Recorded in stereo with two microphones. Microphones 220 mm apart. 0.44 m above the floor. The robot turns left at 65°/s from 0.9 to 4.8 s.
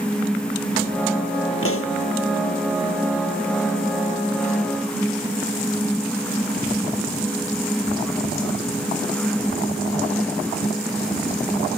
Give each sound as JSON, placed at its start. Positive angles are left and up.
{"t": 1.6, "sound": "a pop", "side_deg": 80}